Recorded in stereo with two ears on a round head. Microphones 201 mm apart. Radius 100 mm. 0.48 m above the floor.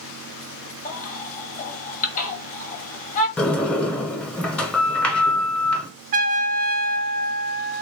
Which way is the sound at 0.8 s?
35° left (ahead or behind).